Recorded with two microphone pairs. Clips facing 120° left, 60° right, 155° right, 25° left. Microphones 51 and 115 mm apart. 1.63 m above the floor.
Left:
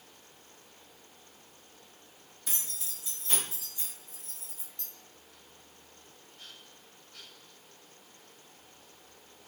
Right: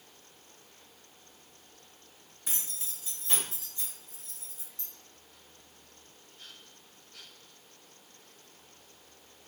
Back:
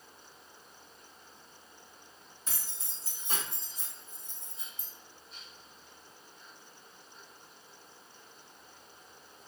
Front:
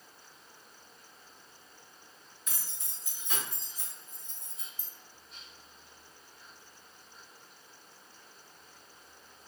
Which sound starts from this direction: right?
Keys jangling, at 2.5 s.